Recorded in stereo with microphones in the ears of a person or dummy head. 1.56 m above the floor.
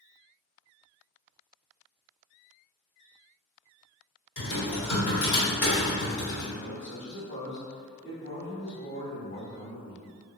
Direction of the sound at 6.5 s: 65° left (ahead or behind).